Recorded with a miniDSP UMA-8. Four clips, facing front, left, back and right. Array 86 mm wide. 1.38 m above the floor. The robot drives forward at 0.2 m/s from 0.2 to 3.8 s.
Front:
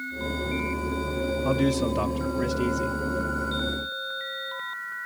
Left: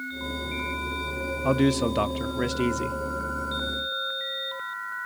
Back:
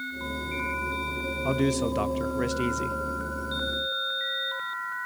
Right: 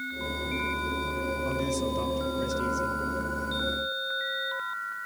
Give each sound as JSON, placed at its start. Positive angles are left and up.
{"t": 1.4, "sound": "a man speaking", "azimuth_deg": 90, "distance_m": 0.7}